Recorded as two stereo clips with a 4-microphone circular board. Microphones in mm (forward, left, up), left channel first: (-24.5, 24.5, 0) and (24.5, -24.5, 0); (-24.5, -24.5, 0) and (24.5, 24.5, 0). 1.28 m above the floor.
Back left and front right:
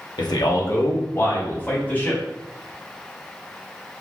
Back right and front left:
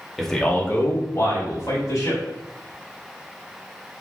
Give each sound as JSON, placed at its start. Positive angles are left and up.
{"t": 0.2, "sound": "a man speaking", "azimuth_deg": 135, "distance_m": 1.0}